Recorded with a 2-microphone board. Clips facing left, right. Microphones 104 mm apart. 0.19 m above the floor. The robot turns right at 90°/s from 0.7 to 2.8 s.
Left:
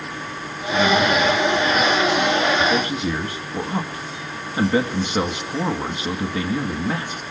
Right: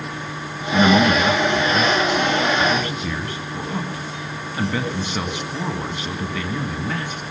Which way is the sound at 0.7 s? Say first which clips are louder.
Right 2 dB; 150° right.